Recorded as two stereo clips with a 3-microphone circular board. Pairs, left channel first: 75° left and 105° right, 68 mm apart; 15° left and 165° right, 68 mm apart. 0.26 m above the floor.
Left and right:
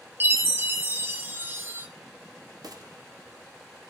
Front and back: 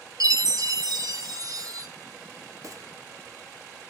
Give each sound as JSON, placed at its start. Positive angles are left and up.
{"t": 0.2, "sound": "a chime", "azimuth_deg": -160, "distance_m": 1.2}
{"t": 2.6, "sound": "a gunshot", "azimuth_deg": -125, "distance_m": 1.3}